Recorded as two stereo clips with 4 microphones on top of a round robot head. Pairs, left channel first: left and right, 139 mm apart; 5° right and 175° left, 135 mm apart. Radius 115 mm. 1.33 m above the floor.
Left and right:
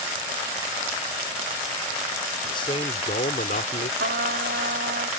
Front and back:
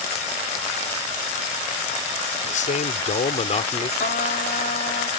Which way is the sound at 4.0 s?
50° right.